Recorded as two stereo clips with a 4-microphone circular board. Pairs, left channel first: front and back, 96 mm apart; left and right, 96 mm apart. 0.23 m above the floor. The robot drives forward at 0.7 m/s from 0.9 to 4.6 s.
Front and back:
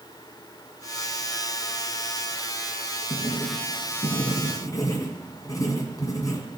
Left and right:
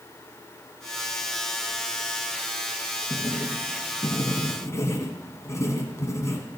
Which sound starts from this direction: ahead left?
Writing, at 3.1 s.